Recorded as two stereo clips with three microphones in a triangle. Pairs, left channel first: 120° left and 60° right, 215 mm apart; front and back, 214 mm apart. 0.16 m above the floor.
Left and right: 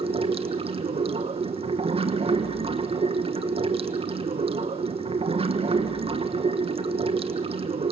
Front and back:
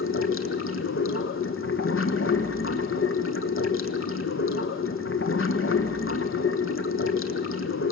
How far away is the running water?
About 1.0 m.